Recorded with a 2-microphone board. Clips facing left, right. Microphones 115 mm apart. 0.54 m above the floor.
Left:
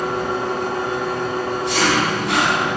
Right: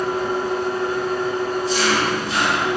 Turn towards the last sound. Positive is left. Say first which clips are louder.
# even
turn(degrees=70)  # may be behind; listen again after turning